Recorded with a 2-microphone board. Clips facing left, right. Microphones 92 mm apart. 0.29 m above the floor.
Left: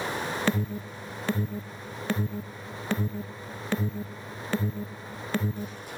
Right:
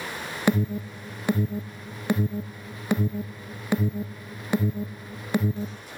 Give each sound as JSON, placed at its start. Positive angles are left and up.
{"t": 0.5, "sound": "an alarm", "side_deg": -15, "distance_m": 0.6}